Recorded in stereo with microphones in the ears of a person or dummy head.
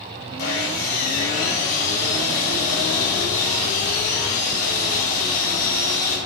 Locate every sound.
0.4 s sawing: 55° left (ahead or behind), 4 m